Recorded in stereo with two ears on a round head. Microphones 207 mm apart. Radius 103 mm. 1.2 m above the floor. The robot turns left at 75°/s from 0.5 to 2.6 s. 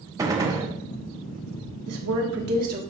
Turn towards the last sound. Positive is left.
turn(degrees=-140)